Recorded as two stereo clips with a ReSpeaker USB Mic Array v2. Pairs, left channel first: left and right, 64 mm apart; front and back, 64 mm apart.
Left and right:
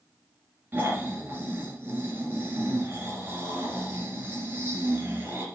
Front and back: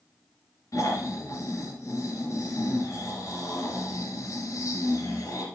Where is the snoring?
35° right, 3 m.